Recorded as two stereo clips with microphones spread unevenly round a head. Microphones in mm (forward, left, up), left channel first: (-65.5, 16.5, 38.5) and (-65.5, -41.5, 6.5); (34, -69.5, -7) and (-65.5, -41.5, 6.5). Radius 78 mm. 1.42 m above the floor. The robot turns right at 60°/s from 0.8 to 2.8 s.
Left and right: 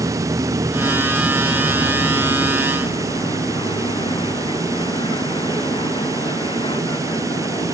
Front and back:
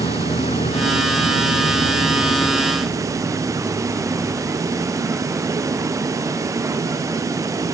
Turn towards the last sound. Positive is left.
turn(degrees=90)